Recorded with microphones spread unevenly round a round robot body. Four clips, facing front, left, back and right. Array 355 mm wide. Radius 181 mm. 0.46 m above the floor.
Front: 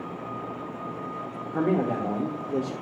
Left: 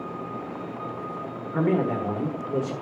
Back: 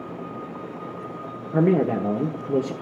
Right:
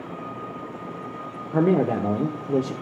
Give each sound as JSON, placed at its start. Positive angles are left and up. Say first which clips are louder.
{"t": 1.5, "sound": "a man speaking", "louder": "right 4 dB, back 5 dB", "azimuth_deg": -140, "distance_m": 1.5}